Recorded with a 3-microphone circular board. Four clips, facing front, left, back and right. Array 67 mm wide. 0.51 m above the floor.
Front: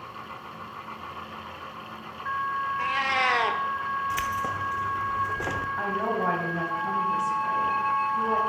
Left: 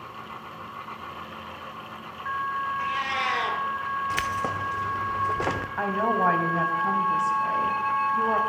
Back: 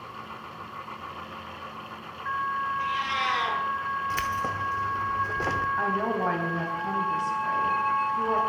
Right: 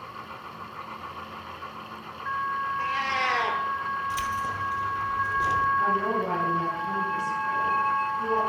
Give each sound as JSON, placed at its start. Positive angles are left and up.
{"t": 2.8, "sound": "a cat meowing", "azimuth_deg": -10, "distance_m": 1.6}
{"t": 4.1, "sound": "keys jangling", "azimuth_deg": 95, "distance_m": 0.7}
{"t": 5.8, "sound": "a woman speaking", "azimuth_deg": 90, "distance_m": 3.5}